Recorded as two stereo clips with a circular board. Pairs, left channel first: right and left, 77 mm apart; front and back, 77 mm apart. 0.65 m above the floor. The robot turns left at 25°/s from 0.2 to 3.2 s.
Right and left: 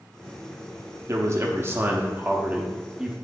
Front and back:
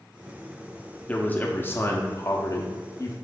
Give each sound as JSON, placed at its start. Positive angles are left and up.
{"t": 1.1, "sound": "a man speaking", "azimuth_deg": 65, "distance_m": 0.7}